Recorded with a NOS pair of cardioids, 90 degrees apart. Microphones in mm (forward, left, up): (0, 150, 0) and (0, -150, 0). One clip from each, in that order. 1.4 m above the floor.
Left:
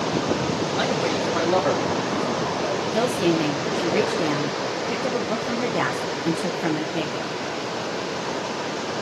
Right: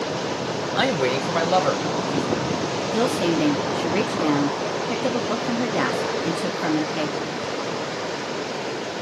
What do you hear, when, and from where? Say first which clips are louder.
0.8 s a man speaking: right 4 dB; 40° right, 0.9 m; by 2.8 s 30° right, 2.5 m
2.9 s a woman speaking: right 1 dB; 10° right, 0.7 m